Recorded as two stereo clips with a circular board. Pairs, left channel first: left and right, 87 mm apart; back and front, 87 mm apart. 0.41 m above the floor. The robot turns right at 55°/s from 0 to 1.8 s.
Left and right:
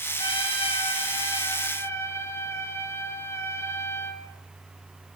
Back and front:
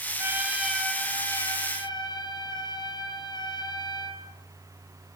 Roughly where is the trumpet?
Ahead left.